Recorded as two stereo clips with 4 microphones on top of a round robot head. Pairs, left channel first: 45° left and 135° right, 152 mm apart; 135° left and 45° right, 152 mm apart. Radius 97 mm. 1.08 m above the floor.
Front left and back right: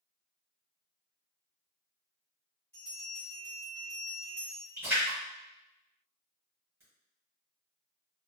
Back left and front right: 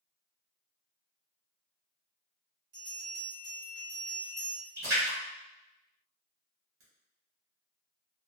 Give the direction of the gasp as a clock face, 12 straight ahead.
I don't hear a gasp.